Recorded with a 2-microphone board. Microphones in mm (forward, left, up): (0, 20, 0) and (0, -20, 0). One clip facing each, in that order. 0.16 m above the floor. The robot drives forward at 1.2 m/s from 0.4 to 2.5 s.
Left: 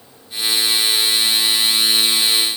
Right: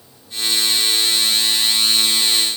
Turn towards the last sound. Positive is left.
No sound to turn to.